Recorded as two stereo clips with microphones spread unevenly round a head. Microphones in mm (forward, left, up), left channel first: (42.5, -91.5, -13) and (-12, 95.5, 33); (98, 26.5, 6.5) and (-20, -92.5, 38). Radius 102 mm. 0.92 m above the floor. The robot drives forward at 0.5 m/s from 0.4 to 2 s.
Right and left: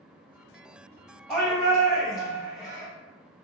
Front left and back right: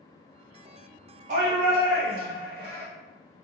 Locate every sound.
1.3 s a shout: 135° right, 0.9 m; by 2.9 s 155° right, 1.1 m